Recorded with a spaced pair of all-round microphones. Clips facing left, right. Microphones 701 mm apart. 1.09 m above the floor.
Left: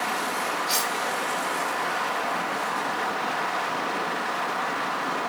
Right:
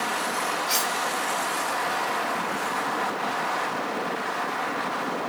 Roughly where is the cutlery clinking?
Left.